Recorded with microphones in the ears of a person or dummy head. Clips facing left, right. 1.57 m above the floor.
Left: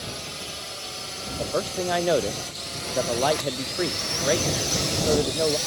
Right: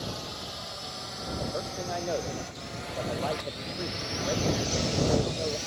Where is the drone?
30° left (ahead or behind); by 5.7 s 65° left (ahead or behind).